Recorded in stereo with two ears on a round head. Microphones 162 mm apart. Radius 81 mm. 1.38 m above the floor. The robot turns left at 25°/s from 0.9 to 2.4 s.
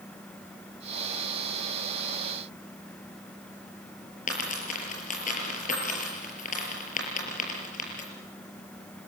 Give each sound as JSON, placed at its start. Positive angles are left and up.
{"t": 4.3, "sound": "a dropped coin", "side_deg": 45, "distance_m": 6.0}